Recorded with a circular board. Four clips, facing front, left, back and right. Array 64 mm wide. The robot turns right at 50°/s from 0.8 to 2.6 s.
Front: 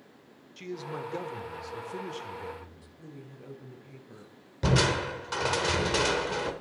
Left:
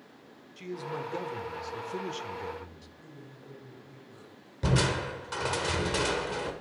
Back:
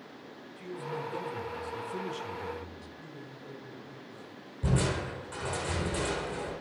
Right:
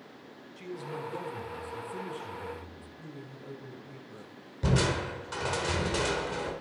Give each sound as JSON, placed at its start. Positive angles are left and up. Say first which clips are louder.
{"t": 0.6, "sound": "a man speaking", "louder": "left 2 dB, front 1 dB", "azimuth_deg": 20, "distance_m": 1.4}
{"t": 3.0, "sound": "a woman speaking", "louder": "right 5 dB, back 1 dB", "azimuth_deg": -25, "distance_m": 7.0}
{"t": 4.6, "sound": "crushing", "louder": "even, front 5 dB", "azimuth_deg": 15, "distance_m": 1.9}